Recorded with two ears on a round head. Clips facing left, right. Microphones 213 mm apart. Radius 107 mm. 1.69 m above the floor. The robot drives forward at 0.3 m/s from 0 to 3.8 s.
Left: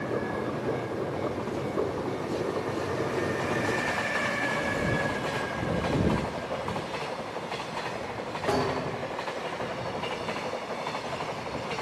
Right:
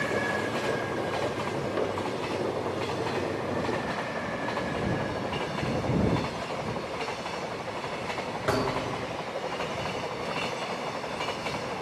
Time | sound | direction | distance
5.8 | ticking | 15° right (ahead or behind) | 0.9 m
8.5 | a thud | 20° right (ahead or behind) | 6 m